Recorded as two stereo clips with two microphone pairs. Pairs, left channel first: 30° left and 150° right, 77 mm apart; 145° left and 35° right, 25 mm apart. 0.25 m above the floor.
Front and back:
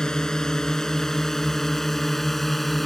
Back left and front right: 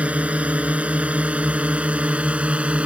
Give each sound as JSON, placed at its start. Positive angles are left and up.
{"t": 0.0, "sound": "a drone", "azimuth_deg": -50}